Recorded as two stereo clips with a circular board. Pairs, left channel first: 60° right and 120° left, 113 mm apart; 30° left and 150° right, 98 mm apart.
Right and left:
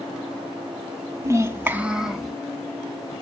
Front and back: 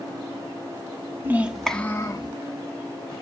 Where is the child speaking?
160° left, 0.7 m; by 2.3 s 25° left, 0.8 m.